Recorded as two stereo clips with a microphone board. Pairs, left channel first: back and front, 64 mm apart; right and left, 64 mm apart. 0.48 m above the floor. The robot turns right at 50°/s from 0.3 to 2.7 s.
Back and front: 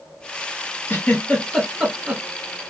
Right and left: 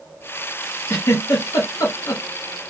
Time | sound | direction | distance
0.9 | a giggle | 130° right | 1.0 m